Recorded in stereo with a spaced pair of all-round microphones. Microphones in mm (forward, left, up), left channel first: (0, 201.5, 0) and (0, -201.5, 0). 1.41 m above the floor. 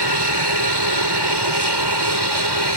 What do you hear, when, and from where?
0.0 s an aircraft: 75° right (ahead or behind)